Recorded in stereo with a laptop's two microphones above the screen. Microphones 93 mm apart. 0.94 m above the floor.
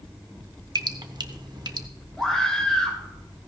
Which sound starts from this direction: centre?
A scream, at 2.2 s.